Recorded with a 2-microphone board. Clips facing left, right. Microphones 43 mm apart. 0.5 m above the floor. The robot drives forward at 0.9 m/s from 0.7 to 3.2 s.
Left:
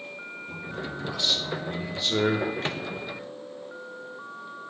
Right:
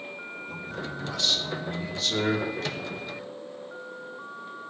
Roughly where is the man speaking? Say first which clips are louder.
Left 1 dB; centre.